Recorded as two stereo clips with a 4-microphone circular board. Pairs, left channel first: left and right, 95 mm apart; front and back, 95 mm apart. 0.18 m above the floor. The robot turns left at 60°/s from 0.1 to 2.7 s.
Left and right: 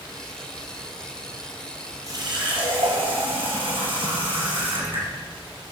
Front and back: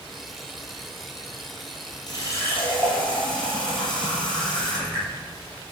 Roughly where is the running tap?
Ahead right.